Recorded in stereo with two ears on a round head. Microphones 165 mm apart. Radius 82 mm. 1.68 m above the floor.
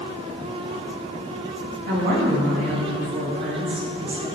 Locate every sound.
1.9 s a woman speaking: 60° right (ahead or behind), 3 m